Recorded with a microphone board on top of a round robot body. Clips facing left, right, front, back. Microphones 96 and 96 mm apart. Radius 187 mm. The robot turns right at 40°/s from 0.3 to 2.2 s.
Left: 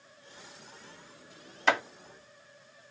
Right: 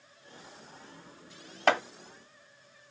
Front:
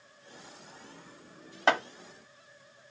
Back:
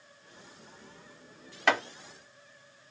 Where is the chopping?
60° right, 1.6 m; by 1.8 s 55° right, 1.6 m.